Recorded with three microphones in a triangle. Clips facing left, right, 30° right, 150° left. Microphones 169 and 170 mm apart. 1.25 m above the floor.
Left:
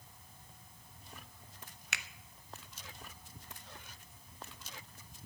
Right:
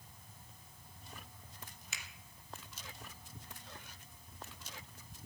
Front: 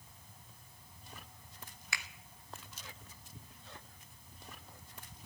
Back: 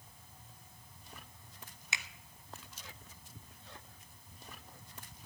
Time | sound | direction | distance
1.9 | a finger snap | 85° left | 0.6 m